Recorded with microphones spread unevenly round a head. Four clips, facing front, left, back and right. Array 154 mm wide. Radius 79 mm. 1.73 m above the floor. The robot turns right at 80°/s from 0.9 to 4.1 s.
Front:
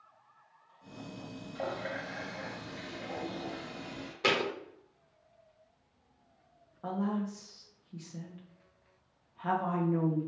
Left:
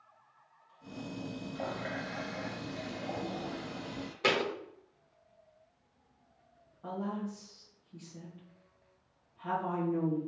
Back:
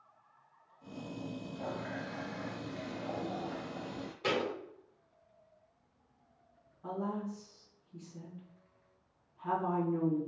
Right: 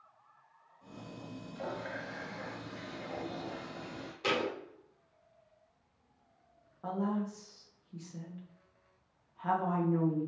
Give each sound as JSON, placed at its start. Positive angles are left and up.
{"t": 1.6, "sound": "a running tap", "azimuth_deg": 30, "distance_m": 1.7}
{"t": 4.2, "sound": "a thud", "azimuth_deg": 30, "distance_m": 1.5}
{"t": 6.8, "sound": "a woman speaking", "azimuth_deg": -30, "distance_m": 2.5}